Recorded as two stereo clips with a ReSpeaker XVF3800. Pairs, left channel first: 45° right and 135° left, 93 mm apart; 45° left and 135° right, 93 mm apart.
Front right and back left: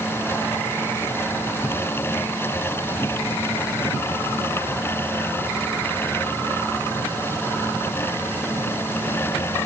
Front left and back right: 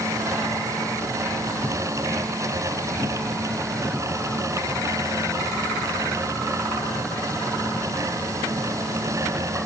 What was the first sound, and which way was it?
Only background noise.